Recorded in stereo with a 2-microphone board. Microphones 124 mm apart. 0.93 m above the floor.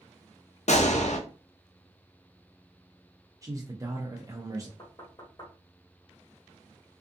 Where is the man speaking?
25° right (ahead or behind), 0.6 m.